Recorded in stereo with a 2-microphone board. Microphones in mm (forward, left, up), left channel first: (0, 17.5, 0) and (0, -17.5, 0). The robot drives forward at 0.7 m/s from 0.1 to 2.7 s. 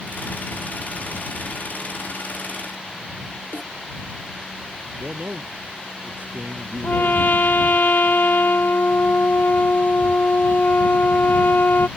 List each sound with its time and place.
3.5 s a snare drum: 80° left
5.0 s a man speaking: 55° right (ahead or behind)
6.8 s a trumpet: 70° left (ahead or behind)